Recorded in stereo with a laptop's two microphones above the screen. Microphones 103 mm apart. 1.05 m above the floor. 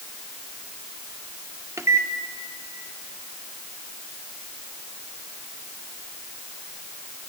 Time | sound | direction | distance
1.8 | a microwave | 30° right (ahead or behind) | 0.7 m